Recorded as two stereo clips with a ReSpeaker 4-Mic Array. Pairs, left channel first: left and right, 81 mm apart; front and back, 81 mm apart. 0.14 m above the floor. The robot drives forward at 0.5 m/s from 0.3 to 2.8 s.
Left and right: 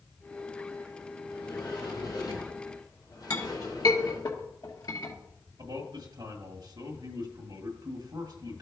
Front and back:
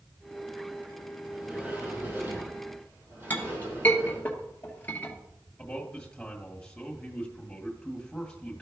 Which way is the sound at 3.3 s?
65° left.